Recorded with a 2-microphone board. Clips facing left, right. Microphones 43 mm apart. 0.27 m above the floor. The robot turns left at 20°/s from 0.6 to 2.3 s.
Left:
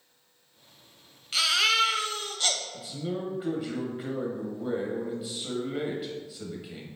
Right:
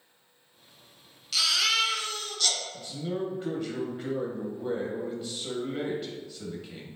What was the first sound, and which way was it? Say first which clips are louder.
A baby crying: left 2 dB; 30° left (ahead or behind).